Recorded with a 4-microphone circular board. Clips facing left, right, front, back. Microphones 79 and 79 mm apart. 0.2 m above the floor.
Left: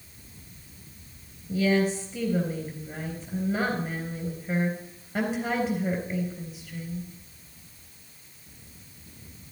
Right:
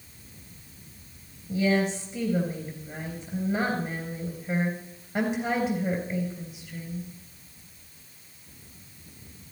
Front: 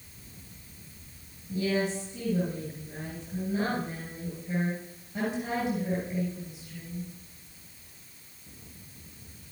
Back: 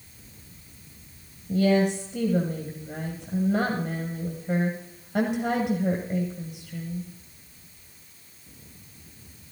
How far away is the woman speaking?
About 3 m.